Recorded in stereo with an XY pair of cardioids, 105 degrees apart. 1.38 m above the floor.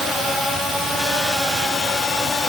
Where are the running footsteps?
No running footsteps in this recording.